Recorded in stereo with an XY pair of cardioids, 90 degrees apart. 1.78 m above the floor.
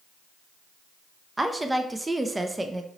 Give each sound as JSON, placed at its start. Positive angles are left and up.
{"t": 1.4, "sound": "a woman speaking", "azimuth_deg": -15, "distance_m": 0.6}